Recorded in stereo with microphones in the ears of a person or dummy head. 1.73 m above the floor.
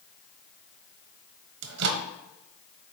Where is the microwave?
65° right (ahead or behind), 0.9 m.